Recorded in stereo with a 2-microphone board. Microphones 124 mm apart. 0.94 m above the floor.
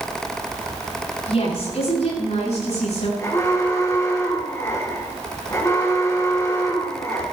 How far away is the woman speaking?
About 8.5 m.